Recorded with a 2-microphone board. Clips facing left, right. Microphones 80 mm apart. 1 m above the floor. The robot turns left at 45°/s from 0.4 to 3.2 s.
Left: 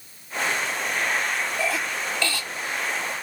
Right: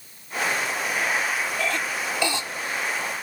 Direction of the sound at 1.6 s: 10° left (ahead or behind).